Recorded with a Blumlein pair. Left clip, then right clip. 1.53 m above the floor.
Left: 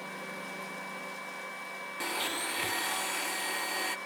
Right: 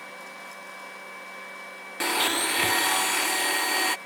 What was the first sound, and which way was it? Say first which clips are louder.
A blender: right 9 dB; 65° right.